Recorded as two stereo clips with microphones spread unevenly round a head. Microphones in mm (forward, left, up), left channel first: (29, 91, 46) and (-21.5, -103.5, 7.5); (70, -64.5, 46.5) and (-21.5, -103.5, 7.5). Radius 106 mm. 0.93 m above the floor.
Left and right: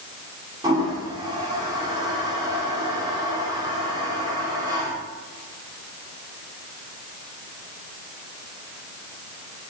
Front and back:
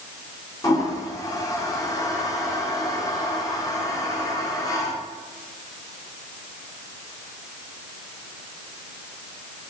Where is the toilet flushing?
30° right, 1.3 m.